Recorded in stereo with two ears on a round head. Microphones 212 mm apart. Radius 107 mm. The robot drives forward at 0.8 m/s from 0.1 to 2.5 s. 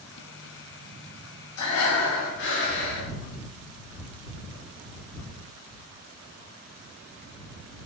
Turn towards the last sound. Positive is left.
turn(degrees=55)  # may be behind; listen again after turning